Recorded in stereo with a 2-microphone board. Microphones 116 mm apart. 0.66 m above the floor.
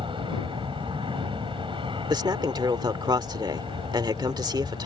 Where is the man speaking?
40° right (ahead or behind).